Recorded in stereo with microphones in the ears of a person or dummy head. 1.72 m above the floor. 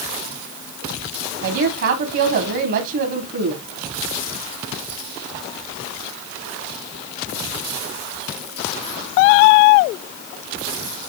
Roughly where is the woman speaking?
Right.